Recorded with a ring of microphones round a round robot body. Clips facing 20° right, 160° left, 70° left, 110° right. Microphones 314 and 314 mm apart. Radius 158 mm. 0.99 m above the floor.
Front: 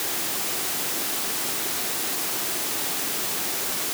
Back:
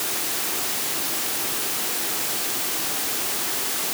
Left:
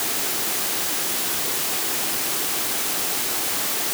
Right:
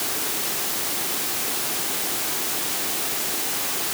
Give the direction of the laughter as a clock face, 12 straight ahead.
No laughter in this recording.